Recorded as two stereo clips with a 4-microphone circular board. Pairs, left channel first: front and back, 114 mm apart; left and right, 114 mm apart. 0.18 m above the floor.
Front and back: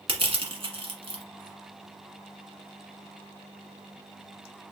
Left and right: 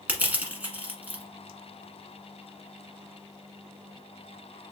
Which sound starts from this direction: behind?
Crushing, at 0.1 s.